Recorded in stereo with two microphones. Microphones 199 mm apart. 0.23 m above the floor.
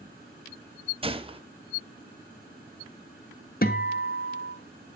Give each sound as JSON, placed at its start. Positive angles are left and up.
{"t": 1.0, "sound": "a gunshot", "side_deg": -25, "distance_m": 0.8}
{"t": 3.6, "sound": "a guitar", "side_deg": 50, "distance_m": 1.1}